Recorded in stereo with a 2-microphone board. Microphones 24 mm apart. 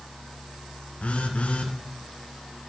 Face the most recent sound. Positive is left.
turn(degrees=75)  # may be behind; listen again after turning